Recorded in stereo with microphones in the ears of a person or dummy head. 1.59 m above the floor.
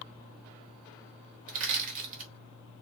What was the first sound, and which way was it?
Crushing, 40° right (ahead or behind).